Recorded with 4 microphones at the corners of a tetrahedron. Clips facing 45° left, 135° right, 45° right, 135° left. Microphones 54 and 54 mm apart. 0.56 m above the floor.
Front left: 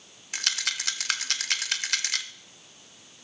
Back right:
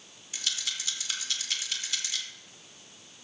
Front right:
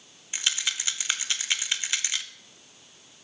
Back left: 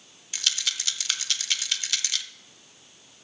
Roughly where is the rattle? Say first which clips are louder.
Front left 5 dB, front right 1 dB; ahead.